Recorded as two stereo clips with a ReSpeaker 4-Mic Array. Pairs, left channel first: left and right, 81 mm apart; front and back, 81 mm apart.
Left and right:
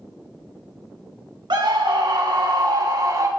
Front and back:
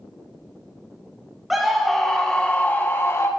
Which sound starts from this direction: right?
A scream, at 1.5 s.